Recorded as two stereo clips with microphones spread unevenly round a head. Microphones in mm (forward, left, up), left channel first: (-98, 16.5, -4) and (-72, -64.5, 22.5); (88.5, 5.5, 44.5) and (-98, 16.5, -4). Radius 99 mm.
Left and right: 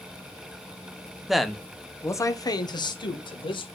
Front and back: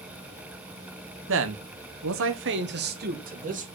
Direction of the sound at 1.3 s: 160° right.